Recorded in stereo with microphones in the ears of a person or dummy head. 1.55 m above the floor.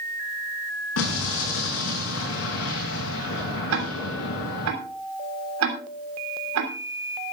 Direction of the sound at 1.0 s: 75° left (ahead or behind).